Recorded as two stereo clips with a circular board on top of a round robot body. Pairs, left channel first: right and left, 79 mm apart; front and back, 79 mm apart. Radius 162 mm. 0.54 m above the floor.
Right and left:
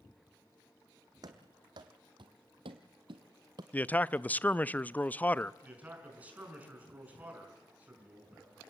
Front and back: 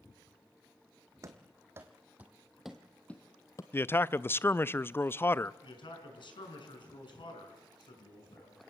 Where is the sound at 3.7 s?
35° right, 0.6 m.